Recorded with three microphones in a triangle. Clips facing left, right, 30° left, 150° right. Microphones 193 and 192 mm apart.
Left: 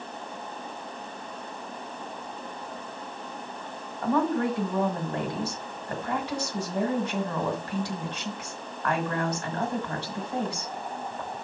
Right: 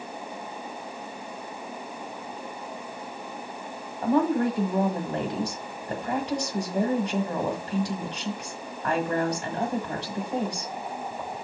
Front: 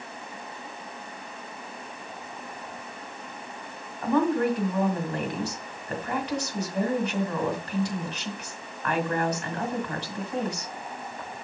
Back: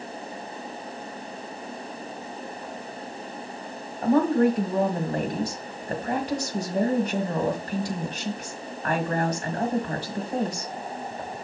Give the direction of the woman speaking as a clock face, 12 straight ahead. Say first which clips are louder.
Right 2 dB, back 3 dB; 5 o'clock.